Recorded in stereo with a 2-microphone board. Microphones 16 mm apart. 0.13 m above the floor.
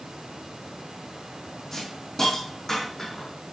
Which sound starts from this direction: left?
A hiss, at 1.7 s.